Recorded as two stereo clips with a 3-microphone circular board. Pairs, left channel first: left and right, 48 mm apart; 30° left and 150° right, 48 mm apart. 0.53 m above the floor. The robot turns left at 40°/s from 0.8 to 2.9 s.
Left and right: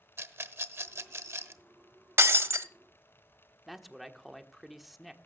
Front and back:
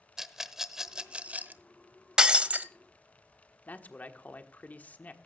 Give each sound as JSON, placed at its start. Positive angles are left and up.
{"t": 0.2, "sound": "a rattle", "azimuth_deg": -70, "distance_m": 0.9}
{"t": 2.2, "sound": "breaking glass", "azimuth_deg": -75, "distance_m": 0.7}
{"t": 3.7, "sound": "a man speaking", "azimuth_deg": 0, "distance_m": 1.2}